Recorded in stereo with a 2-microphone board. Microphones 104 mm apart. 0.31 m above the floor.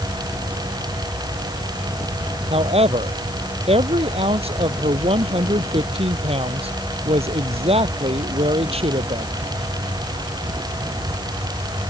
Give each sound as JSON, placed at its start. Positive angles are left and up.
{"t": 2.5, "sound": "a woman speaking", "side_deg": -75}